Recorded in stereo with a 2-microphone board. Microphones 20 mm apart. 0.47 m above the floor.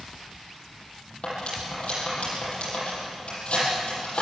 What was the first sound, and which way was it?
Cutlery clinking, 55° left (ahead or behind).